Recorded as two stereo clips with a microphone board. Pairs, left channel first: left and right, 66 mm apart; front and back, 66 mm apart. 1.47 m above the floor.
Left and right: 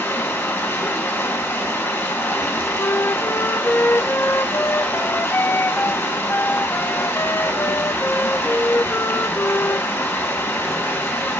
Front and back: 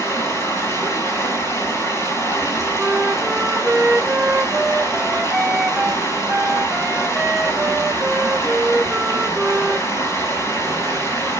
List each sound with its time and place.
0.0 s running water: 35° left, 4 m
2.8 s a flute: 110° left, 0.5 m